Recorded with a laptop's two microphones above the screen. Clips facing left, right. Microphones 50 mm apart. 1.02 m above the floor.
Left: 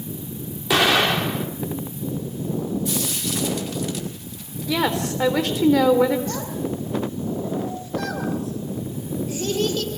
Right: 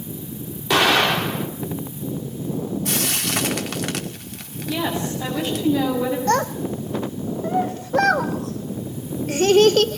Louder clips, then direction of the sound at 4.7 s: Left 2 dB; 85° left.